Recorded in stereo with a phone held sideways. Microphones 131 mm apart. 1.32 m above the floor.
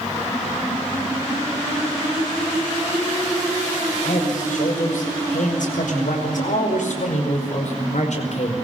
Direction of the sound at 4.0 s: 85° left.